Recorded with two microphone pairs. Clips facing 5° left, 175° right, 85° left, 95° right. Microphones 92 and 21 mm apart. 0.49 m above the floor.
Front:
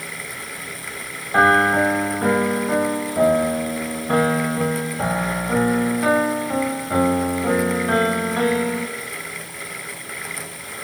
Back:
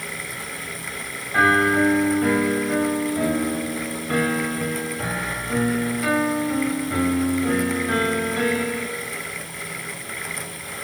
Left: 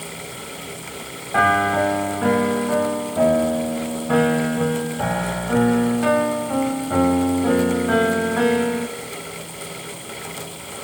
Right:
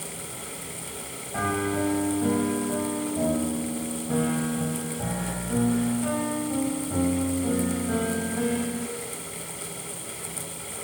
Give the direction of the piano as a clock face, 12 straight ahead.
10 o'clock.